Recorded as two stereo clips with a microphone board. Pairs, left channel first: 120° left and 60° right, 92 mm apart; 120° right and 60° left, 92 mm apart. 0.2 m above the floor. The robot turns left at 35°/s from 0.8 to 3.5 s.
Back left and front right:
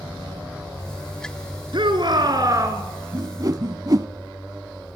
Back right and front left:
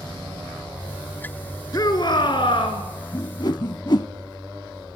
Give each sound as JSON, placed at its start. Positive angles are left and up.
{"t": 1.7, "sound": "a shout", "azimuth_deg": -75, "distance_m": 2.5}
{"t": 3.1, "sound": "a whoosh", "azimuth_deg": -85, "distance_m": 0.5}